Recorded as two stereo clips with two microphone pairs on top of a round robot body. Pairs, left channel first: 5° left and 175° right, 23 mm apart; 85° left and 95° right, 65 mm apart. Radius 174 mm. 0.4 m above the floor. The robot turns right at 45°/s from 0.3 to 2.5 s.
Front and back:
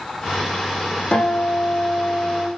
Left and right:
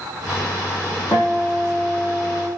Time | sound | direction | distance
1.1 | a guitar | 10° right | 5 m